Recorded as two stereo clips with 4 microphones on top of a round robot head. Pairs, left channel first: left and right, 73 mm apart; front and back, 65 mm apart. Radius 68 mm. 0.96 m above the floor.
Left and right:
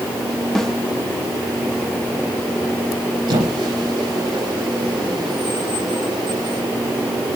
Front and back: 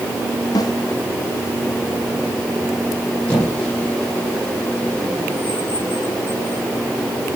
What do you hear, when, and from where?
0.6 s a snare drum: 5° left, 2.5 m
3.3 s a squeak: 75° right, 9 m